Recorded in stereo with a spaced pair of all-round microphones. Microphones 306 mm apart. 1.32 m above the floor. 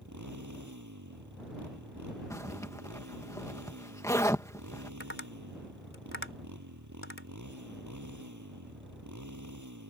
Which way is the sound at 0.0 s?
70° right (ahead or behind).